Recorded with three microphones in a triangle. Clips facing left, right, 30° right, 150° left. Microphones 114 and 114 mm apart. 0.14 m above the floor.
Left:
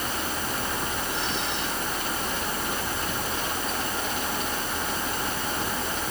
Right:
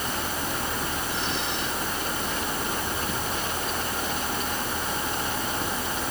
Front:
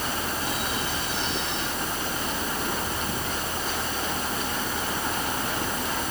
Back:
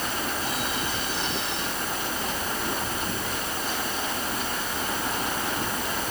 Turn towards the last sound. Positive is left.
No sound to turn to.